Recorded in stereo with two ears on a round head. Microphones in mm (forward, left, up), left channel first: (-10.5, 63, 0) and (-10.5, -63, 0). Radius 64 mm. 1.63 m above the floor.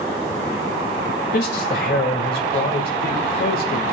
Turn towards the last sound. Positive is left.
turn(degrees=60)  # may be behind; listen again after turning